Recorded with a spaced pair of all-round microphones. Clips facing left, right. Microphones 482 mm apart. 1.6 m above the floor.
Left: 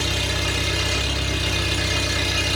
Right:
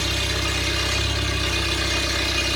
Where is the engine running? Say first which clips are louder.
Left 1 dB; 50° left (ahead or behind), 10 m.